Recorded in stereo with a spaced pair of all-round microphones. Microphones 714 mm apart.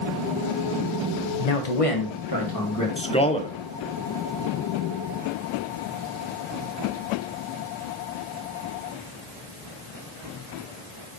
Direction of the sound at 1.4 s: 65° left (ahead or behind).